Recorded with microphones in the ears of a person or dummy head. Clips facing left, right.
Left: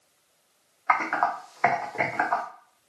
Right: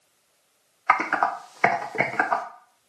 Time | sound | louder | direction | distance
0.9 | typing on a keyboard | right 1 dB | 40° right (ahead or behind) | 0.5 m